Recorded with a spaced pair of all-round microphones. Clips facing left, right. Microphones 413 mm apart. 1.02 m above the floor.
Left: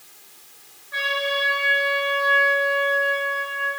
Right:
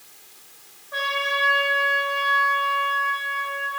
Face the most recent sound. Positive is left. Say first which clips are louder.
# left 3 dB
turn(degrees=-75)  # may be behind; listen again after turning